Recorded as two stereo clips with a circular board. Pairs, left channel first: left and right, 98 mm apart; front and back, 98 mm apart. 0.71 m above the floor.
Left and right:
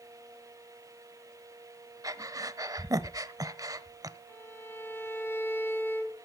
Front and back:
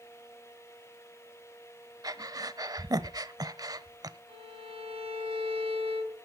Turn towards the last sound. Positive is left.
turn(degrees=160)